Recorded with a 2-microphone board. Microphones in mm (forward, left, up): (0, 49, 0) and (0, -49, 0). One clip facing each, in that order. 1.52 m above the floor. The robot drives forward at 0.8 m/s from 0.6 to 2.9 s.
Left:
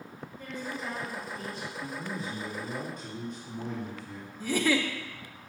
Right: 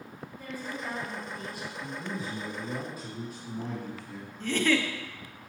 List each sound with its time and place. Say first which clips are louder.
0.4 s a woman speaking: even; 10° right (ahead or behind), 3.5 m
1.8 s a man speaking: right 1 dB; 5° right (ahead or behind), 2 m
4.4 s a giggle: even; 10° left (ahead or behind), 0.6 m